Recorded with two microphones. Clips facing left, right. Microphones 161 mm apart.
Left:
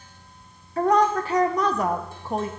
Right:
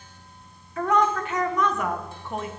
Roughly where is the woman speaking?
Left.